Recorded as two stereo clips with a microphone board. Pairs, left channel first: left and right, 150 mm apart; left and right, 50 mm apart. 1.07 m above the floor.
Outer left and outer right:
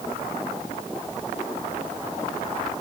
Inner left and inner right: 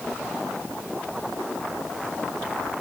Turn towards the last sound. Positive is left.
No sound to turn to.